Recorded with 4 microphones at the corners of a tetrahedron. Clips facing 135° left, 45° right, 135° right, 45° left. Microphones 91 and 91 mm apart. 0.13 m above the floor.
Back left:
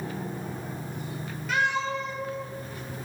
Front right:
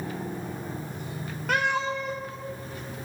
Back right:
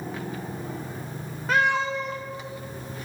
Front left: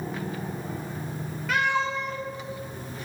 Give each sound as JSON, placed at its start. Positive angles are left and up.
{"t": 1.5, "sound": "a cat meowing", "azimuth_deg": -80, "distance_m": 3.5}